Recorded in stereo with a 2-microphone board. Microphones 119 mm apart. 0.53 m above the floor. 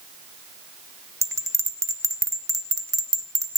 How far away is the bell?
About 1.1 m.